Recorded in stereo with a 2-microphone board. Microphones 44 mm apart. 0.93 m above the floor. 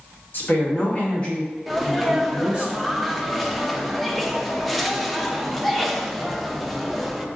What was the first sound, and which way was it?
A woman speaking, 60° left (ahead or behind).